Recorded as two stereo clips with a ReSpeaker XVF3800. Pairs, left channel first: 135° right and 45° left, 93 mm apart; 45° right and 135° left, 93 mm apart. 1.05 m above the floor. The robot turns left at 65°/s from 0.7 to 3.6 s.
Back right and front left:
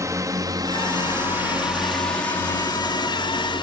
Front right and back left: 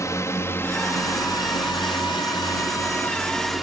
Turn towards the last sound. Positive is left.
turn(degrees=-140)